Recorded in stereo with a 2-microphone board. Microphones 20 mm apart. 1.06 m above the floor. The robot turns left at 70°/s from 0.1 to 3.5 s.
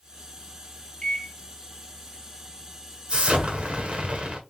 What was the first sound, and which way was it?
A microwave, 40° left (ahead or behind).